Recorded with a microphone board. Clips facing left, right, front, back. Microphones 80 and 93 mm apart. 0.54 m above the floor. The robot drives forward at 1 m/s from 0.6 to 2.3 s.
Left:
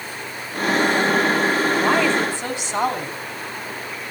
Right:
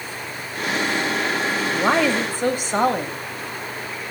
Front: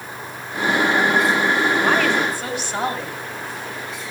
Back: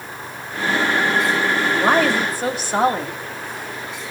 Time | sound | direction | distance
1.7 | a woman speaking | 120° right | 3 m